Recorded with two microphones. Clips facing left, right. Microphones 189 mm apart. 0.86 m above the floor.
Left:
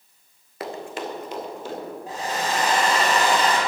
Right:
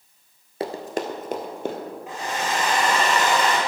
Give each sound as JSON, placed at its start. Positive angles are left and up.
{"t": 0.6, "sound": "running footsteps", "side_deg": -30, "distance_m": 0.9}
{"t": 2.1, "sound": "a hair dryer", "side_deg": 35, "distance_m": 2.5}